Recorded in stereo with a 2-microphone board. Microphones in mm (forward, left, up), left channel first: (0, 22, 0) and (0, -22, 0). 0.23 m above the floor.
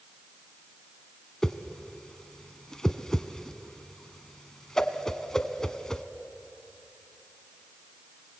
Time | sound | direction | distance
1.4 | a whoosh | 15° left (ahead or behind) | 0.8 m